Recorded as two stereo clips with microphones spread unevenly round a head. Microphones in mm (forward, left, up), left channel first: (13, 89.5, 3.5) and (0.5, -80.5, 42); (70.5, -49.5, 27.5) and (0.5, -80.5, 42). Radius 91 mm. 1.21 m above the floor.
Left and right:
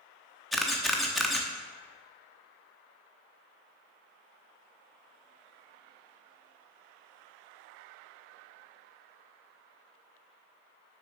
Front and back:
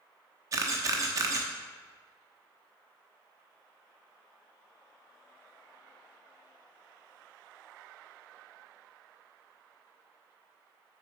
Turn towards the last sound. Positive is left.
turn(degrees=-170)